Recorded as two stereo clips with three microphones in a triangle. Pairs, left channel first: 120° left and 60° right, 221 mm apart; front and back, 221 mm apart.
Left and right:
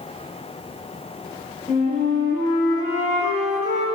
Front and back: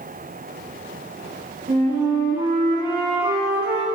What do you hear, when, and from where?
1.7 s a flute: 165° left, 2.5 m